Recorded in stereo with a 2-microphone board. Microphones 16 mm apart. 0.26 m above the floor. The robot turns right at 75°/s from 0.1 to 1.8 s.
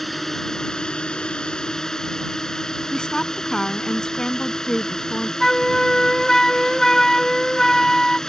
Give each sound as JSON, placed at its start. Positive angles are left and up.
{"t": 0.0, "sound": "a drone", "azimuth_deg": 5}
{"t": 2.9, "sound": "a woman speaking", "side_deg": 55}
{"t": 5.4, "sound": "a flute", "side_deg": 30}